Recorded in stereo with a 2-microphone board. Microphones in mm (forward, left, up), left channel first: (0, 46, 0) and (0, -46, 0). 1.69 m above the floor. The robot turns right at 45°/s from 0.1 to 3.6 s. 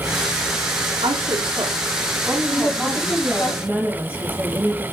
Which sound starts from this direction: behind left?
A woman speaking, at 2.5 s.